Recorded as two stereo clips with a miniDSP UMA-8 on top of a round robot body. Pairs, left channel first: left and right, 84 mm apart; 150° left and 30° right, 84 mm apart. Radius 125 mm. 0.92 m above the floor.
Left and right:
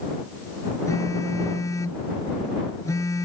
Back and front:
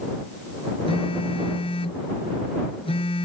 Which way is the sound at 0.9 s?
145° left.